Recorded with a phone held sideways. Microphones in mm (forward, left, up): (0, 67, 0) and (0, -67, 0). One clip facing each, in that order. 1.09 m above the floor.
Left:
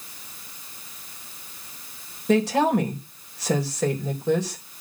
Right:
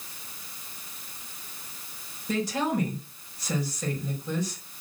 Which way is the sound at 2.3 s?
85° left.